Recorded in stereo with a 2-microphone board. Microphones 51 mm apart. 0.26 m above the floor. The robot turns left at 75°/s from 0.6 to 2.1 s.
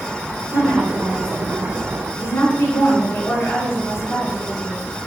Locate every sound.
0.5 s a woman speaking: 125° right, 3.5 m; by 4.8 s 125° left, 3.5 m